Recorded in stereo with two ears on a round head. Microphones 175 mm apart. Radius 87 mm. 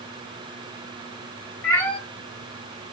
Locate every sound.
1.6 s a cat meowing: 10° left (ahead or behind), 0.8 m